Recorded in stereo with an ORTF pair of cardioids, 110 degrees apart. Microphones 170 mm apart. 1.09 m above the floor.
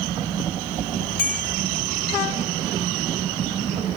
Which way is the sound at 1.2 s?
55° left.